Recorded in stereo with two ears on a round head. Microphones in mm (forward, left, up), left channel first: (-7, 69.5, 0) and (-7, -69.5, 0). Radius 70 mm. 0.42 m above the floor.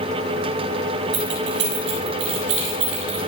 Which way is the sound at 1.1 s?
85° right.